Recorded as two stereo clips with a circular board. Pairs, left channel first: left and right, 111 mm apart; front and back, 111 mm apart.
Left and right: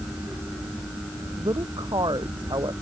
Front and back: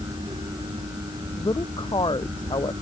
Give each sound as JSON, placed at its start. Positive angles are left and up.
{"t": 1.4, "sound": "a woman speaking", "azimuth_deg": -45}